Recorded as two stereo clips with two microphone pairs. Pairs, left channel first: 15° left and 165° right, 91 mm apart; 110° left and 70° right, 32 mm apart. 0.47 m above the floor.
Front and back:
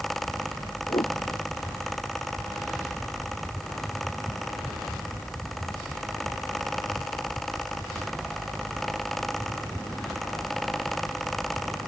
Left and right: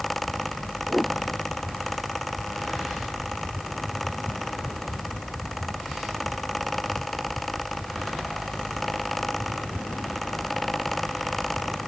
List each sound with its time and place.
0.9 s a whoosh: 5° left